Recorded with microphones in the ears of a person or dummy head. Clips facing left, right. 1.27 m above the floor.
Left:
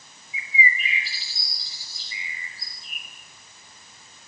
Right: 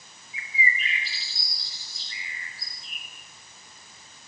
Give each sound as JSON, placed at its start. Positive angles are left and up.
{"t": 0.3, "sound": "a bird", "side_deg": 5, "distance_m": 8.0}